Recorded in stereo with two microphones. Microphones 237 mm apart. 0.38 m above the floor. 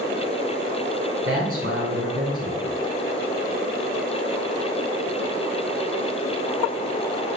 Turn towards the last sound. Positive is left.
turn(degrees=-70)  # may be behind; listen again after turning